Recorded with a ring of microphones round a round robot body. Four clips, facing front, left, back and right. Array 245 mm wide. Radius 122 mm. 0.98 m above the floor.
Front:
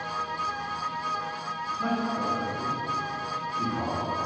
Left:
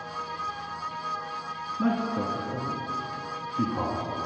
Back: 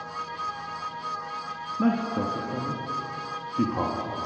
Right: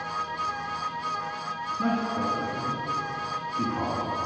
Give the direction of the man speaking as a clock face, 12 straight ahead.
6 o'clock.